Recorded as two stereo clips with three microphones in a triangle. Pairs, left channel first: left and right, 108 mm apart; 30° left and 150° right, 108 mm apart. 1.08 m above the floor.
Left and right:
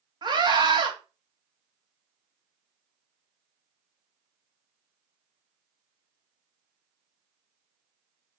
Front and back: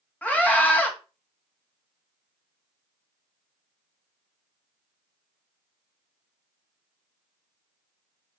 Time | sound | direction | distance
0.2 | a scream | 45° right | 2.5 m